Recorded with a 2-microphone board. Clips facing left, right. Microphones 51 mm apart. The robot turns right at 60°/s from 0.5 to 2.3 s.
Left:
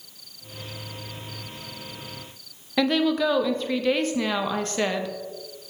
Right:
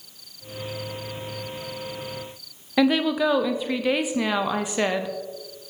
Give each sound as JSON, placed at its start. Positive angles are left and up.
{"t": 2.8, "sound": "a woman speaking", "side_deg": -10, "distance_m": 0.6}